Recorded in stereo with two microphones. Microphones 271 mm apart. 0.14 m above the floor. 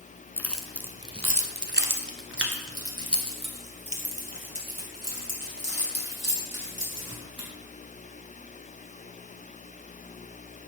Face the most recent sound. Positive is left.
turn(degrees=-75)  # may be behind; listen again after turning